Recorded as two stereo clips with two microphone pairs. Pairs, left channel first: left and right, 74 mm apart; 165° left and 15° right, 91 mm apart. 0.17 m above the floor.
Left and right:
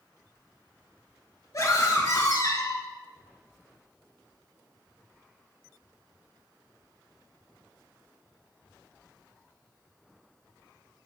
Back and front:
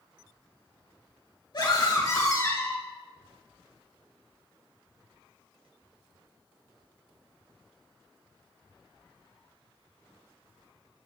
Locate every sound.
1.5 s a scream: 130° left, 3 m; by 2.8 s 100° left, 2 m